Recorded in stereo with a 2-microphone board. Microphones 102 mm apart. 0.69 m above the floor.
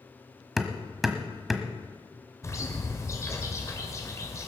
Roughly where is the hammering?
Centre.